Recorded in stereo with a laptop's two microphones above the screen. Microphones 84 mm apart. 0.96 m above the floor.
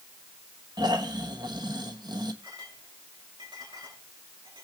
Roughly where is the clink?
Right.